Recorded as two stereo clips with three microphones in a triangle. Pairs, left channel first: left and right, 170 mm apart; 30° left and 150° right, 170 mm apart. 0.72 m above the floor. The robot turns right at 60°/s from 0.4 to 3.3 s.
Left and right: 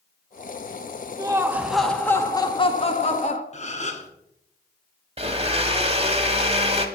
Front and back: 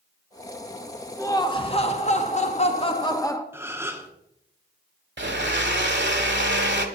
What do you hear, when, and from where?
1.2 s laughter: 35° right, 1.2 m; by 3.4 s 90° left, 1.2 m
3.5 s a gasp: 135° left, 1.2 m
5.2 s a blender: 145° right, 1.3 m